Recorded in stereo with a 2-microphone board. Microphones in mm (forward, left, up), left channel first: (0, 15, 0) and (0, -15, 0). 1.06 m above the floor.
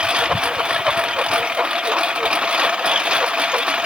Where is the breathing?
No breathing in this recording.